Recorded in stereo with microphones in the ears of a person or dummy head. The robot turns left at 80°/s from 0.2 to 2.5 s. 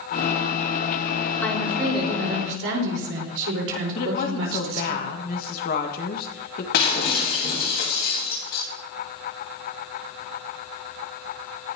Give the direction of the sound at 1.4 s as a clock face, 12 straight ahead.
12 o'clock.